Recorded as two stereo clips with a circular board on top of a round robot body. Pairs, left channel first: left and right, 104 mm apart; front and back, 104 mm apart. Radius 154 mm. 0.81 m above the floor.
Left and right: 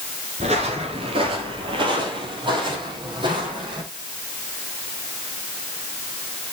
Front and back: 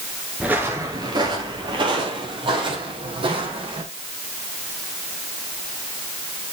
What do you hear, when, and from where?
0.4 s footsteps: 100° right, 0.8 m; by 3.8 s 140° right, 3 m